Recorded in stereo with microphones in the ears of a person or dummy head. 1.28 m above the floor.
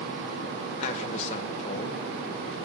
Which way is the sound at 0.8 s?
35° left (ahead or behind).